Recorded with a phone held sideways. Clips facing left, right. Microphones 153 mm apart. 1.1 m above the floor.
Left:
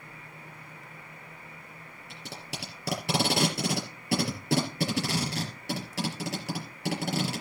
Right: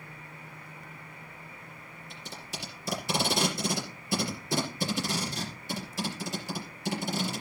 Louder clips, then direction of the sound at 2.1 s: Left 2 dB; 70° left (ahead or behind).